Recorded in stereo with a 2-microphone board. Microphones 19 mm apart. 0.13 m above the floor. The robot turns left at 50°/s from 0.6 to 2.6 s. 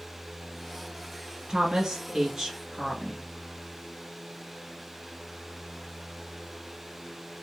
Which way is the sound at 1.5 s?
115° right.